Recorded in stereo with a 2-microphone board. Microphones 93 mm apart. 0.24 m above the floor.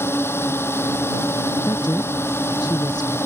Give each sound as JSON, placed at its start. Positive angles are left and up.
{"t": 0.0, "sound": "a drone", "side_deg": 25}
{"t": 1.7, "sound": "a woman speaking", "side_deg": 50}